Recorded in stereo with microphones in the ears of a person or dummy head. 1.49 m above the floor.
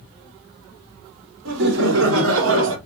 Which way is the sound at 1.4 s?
75° right (ahead or behind).